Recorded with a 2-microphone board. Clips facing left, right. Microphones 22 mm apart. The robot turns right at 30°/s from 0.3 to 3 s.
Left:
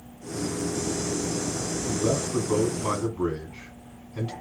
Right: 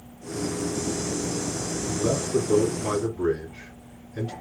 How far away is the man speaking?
About 1.6 m.